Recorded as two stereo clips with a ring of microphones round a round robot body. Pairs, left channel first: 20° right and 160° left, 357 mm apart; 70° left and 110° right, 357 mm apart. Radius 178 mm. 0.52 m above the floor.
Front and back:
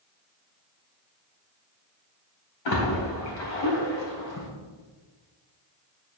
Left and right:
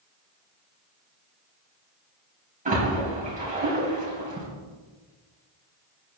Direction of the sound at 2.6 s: 45° right.